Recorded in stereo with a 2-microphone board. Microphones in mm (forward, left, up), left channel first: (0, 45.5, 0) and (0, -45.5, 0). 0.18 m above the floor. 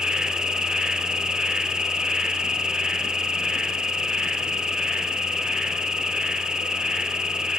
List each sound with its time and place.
0.0 s an insect: 10° right (ahead or behind), 0.8 m